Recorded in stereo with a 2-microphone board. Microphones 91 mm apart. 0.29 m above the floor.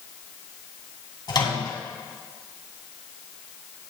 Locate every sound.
1.3 s a microwave: 50° left (ahead or behind), 2 m